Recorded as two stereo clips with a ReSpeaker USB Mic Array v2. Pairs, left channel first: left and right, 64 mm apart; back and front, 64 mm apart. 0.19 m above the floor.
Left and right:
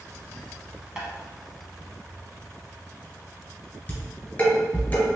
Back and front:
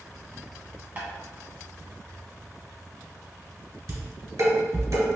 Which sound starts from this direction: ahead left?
Dishes clattering, at 3.9 s.